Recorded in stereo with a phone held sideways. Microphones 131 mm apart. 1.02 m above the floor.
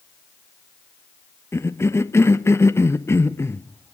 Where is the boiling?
I don't hear boiling.